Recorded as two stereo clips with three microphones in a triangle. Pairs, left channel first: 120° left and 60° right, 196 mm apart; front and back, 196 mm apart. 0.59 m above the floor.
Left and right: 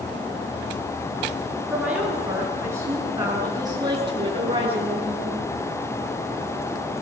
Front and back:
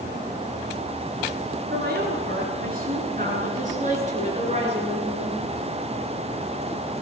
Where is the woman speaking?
145° right, 9 m; by 5.5 s 120° right, 9 m.